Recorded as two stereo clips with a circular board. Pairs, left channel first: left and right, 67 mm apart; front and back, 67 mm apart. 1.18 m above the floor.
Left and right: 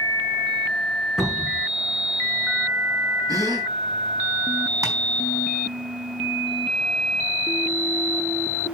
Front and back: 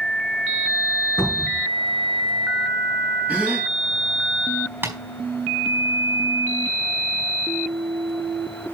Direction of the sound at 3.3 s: 115° right.